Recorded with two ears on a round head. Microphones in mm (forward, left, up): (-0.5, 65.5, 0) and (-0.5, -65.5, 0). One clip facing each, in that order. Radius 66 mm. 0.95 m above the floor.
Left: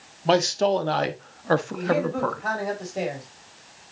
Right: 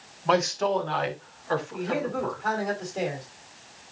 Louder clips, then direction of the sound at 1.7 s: Left 4 dB; 5° left (ahead or behind).